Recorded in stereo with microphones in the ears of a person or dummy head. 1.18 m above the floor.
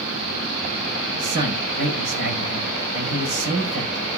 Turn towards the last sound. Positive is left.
turn(degrees=-50)  # may be behind; listen again after turning